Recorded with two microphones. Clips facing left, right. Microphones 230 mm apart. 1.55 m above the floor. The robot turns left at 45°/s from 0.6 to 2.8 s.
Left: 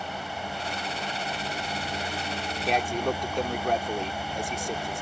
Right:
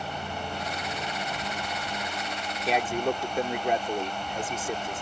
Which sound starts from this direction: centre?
A man speaking, at 2.6 s.